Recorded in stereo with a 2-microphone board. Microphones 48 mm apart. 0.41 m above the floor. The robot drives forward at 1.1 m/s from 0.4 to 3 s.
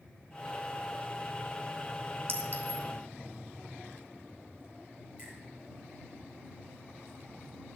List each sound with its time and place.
2.3 s a clink: 50° right (ahead or behind), 1.8 m; by 2.9 s 40° right (ahead or behind), 2 m
5.2 s a finger snap: 25° right (ahead or behind), 7 m